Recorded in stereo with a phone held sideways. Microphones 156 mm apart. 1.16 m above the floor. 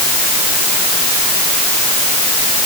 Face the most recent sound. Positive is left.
No sound to turn to.